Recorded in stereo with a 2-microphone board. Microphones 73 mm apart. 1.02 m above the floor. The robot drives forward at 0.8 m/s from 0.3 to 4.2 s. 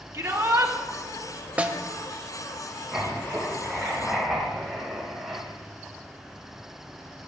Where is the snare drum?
20° right (ahead or behind), 0.8 m.